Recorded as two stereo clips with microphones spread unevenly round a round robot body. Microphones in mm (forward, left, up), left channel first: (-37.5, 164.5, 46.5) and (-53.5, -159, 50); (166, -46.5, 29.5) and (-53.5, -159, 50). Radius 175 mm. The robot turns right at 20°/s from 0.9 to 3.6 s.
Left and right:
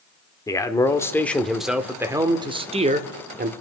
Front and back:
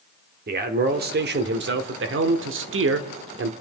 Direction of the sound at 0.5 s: 165° left.